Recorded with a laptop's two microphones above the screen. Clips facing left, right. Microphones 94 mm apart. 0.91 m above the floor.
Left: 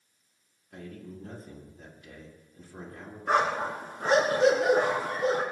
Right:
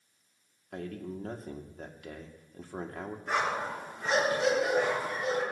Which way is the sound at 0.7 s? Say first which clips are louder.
Right 5 dB; 75° right (ahead or behind).